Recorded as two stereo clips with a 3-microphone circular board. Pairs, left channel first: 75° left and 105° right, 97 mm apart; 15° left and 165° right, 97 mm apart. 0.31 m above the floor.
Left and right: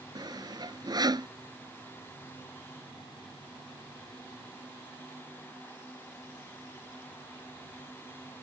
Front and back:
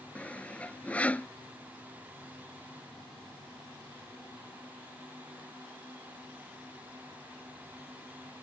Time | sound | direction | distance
0.1 | sawing | 60° right | ?